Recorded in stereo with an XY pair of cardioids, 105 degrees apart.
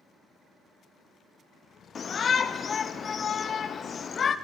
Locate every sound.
1.9 s a shout: 45° left, 0.6 m